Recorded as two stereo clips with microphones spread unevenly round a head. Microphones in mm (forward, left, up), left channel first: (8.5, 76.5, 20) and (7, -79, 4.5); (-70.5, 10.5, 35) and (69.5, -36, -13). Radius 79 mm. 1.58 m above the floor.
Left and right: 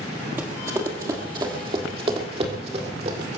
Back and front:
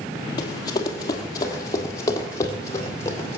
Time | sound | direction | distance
0.4 | running footsteps | 170° right | 2.5 m